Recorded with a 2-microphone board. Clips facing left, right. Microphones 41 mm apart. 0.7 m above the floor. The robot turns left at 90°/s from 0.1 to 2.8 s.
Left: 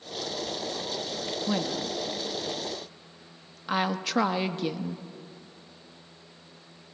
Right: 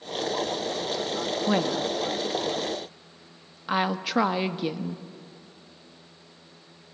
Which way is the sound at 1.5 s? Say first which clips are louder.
Right 5 dB; 25° right (ahead or behind).